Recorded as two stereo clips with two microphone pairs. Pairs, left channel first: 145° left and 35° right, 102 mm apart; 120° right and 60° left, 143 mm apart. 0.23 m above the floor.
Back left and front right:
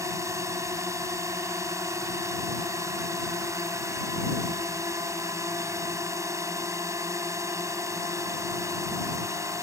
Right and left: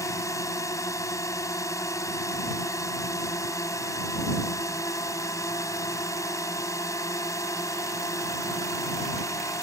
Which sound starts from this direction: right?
A drone, at 0.0 s.